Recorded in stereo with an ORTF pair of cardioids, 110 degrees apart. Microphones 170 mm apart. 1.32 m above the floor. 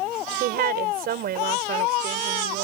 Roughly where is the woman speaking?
Ahead right.